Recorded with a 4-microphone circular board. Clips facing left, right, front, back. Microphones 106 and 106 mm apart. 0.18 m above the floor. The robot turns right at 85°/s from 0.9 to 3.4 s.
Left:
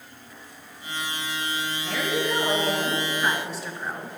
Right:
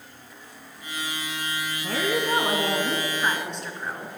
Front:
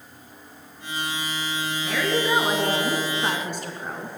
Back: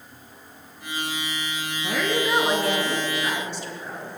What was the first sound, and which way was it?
A woman speaking, 130° right.